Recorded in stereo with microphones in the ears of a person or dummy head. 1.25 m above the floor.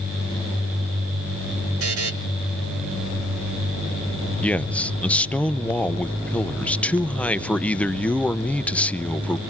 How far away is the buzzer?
About 3 m.